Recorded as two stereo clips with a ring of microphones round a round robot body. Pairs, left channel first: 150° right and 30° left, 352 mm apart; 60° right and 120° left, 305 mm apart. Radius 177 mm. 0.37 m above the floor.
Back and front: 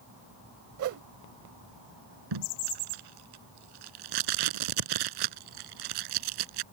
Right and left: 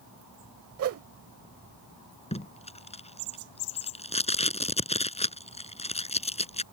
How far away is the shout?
No shout in this recording.